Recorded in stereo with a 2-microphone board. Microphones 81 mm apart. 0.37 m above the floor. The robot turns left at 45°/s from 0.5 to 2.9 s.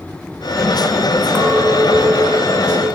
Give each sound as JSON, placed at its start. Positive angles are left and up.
{"t": 1.4, "sound": "a clink", "azimuth_deg": -25, "distance_m": 2.0}